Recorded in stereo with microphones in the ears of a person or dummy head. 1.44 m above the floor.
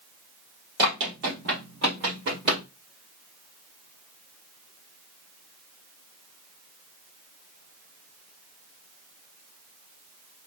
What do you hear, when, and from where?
0.8 s running footsteps: 55° right (ahead or behind), 2.5 m